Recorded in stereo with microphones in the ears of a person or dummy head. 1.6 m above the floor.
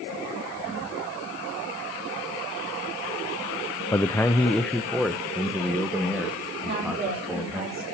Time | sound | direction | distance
3.9 | a man speaking | 10° left (ahead or behind) | 0.5 m
6.6 | a woman speaking | 40° right (ahead or behind) | 5.5 m